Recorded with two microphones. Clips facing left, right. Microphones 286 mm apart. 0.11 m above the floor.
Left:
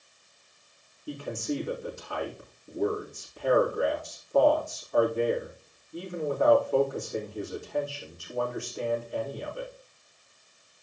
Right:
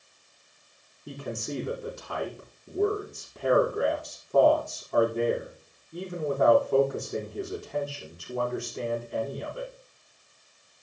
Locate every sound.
1.1 s a man speaking: 75° right (ahead or behind), 6 m